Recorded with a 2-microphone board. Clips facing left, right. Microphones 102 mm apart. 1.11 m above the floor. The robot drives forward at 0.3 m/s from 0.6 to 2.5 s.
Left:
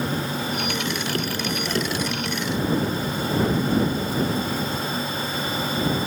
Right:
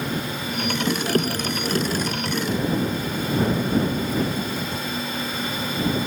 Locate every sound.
Only background noise.